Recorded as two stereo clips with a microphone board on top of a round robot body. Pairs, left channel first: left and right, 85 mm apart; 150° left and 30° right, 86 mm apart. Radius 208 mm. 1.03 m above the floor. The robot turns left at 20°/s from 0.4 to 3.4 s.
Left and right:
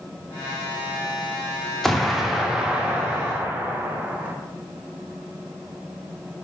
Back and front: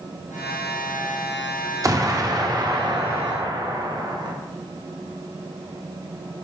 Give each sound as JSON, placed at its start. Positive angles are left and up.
{"t": 1.8, "sound": "an explosion", "azimuth_deg": 5, "distance_m": 0.6}